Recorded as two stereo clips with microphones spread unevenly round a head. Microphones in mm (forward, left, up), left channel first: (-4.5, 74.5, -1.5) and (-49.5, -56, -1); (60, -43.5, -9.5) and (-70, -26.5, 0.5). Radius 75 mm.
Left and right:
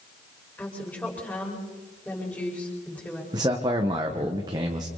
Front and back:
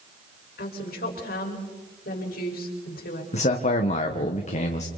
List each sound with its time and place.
0.6 s a woman speaking: 10° right, 5.5 m
3.3 s a man speaking: 45° right, 1.4 m